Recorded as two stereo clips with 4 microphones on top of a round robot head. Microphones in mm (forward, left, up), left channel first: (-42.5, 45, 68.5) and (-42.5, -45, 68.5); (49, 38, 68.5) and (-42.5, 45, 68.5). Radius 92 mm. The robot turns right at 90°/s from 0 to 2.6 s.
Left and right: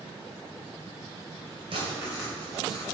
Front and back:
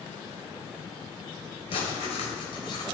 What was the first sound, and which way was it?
Writing, 50° right.